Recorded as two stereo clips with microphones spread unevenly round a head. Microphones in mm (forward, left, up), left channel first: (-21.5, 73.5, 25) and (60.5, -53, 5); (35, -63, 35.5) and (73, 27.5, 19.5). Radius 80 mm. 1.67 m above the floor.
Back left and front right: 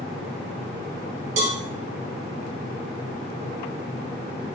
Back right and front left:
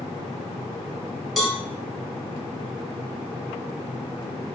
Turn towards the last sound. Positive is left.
turn(degrees=-30)